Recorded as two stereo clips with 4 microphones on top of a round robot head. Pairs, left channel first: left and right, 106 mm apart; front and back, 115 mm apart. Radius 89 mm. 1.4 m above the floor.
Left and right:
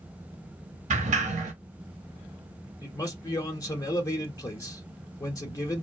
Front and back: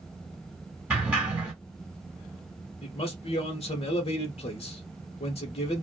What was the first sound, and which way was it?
A sliding door, 95° right.